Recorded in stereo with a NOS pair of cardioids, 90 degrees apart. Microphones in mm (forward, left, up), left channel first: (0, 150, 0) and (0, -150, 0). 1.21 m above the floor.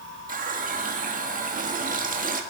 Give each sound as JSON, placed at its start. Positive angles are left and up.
{"t": 0.3, "sound": "a running tap", "azimuth_deg": -30, "distance_m": 1.5}